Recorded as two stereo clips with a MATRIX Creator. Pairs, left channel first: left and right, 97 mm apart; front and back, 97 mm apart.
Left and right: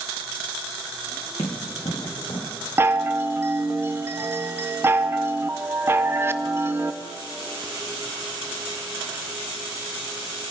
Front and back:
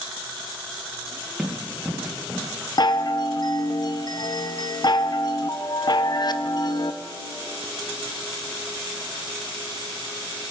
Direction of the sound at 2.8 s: 30° right.